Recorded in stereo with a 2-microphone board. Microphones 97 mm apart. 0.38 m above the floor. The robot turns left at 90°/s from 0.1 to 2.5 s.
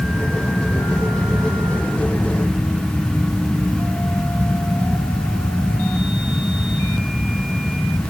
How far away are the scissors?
I don't hear scissors.